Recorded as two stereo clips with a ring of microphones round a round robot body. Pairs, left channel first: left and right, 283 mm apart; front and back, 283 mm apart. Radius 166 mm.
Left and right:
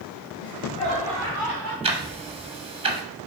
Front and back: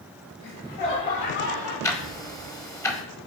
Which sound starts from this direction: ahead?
Laughter, at 0.4 s.